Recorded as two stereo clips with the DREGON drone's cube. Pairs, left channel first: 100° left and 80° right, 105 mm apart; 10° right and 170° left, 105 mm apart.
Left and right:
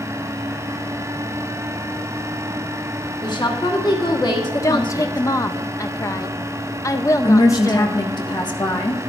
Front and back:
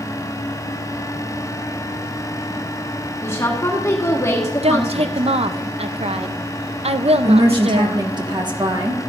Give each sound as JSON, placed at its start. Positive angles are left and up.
{"t": 3.2, "sound": "a woman speaking", "azimuth_deg": 50, "distance_m": 1.5}
{"t": 4.6, "sound": "a woman speaking", "azimuth_deg": 155, "distance_m": 0.5}
{"t": 7.2, "sound": "a woman speaking", "azimuth_deg": 135, "distance_m": 1.3}